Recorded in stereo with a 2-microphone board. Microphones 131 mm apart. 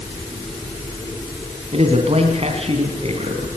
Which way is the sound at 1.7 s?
55° right (ahead or behind).